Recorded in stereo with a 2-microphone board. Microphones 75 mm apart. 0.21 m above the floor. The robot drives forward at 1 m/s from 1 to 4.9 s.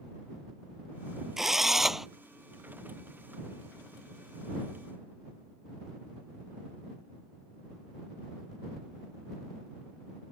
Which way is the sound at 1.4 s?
5° right (ahead or behind).